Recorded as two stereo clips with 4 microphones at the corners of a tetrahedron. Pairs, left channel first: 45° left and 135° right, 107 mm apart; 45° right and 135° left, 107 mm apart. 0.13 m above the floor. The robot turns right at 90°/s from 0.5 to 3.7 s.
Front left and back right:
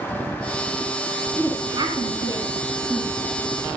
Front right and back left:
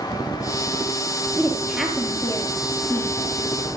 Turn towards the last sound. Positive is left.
turn(degrees=30)